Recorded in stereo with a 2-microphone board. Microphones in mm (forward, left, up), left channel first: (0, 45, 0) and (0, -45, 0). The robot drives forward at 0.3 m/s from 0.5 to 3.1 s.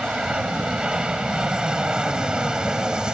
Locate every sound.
0.0 s an aircraft: 10° right (ahead or behind)